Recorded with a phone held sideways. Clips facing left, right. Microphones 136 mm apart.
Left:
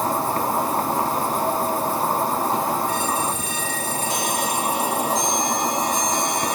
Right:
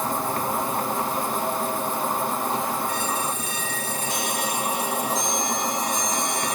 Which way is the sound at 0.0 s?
40° left (ahead or behind).